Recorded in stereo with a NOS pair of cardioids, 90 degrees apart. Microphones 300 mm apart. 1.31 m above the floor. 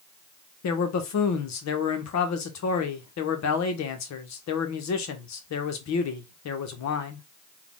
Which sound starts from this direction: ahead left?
A man speaking, at 0.6 s.